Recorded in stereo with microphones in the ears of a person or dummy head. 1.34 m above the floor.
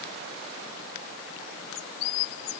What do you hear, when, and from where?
Only background noise.